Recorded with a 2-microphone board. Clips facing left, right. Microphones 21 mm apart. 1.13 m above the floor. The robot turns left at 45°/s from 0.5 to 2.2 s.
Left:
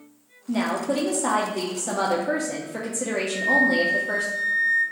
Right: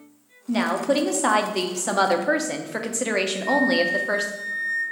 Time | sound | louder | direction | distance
0.5 | a woman speaking | right 3 dB | 30° right | 0.5 m
3.3 | a flute | left 3 dB | 60° left (ahead or behind) | 1.1 m